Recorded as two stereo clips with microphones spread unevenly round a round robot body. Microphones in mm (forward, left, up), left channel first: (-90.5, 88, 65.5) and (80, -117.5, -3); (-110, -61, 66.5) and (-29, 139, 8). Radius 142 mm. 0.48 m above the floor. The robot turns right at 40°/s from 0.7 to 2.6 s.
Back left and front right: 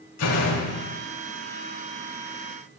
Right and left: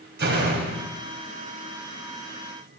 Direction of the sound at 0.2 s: 95° left.